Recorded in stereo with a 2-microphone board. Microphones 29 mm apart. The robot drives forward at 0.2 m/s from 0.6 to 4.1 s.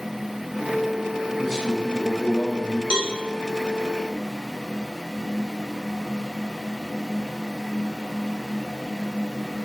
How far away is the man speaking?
About 2 m.